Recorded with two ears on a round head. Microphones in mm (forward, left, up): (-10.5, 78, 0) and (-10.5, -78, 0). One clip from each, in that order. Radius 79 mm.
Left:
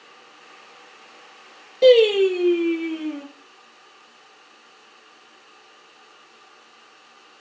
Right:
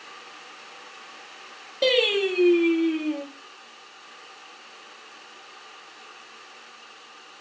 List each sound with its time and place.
1.8 s singing: 15° right (ahead or behind), 1.0 m